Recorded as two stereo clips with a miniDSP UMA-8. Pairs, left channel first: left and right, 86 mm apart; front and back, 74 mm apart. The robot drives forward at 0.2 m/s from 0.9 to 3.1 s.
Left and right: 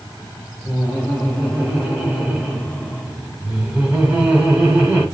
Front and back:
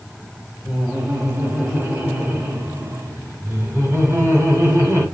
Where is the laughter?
145° right, 1.2 m; by 5.1 s 160° right, 1.4 m.